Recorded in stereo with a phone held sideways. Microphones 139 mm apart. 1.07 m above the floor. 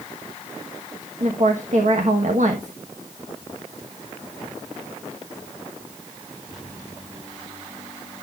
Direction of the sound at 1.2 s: 60° right (ahead or behind).